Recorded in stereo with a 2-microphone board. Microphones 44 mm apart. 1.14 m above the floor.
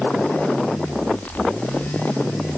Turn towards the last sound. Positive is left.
No sound to turn to.